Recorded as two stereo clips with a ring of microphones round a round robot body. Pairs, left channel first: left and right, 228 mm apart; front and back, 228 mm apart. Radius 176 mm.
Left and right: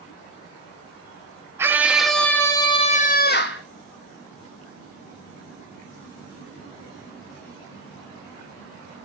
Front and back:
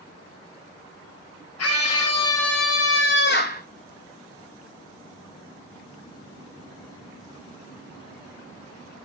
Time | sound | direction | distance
1.6 | a scream | 10° right | 2.0 m